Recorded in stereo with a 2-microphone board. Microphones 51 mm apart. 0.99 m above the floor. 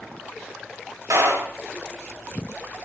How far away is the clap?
About 7 m.